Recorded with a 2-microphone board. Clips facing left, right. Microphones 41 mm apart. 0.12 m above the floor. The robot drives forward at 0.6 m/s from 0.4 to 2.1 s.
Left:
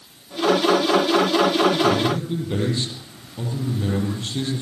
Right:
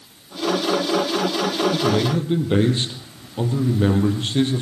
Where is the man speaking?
35° right (ahead or behind), 4.5 m.